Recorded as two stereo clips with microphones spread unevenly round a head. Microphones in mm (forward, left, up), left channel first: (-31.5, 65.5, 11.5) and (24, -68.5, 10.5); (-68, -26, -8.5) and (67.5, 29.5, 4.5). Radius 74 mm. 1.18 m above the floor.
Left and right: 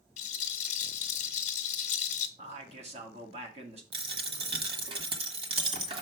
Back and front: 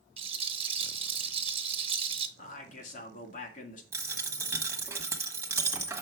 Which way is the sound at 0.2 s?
70° left.